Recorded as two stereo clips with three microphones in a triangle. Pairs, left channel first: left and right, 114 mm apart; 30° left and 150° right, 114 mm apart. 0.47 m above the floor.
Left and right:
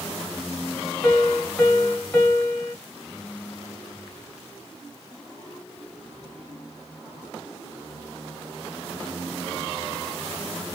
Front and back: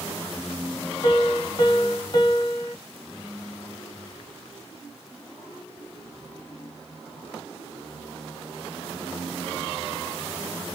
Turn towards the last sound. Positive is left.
turn(degrees=35)